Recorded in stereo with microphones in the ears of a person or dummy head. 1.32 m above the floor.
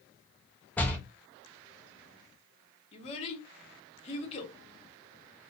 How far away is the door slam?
About 0.5 m.